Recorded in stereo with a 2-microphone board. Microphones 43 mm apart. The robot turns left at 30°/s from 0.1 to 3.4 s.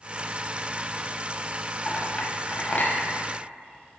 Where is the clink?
25° left (ahead or behind), 1.2 m; by 3.0 s 45° left (ahead or behind), 1.2 m.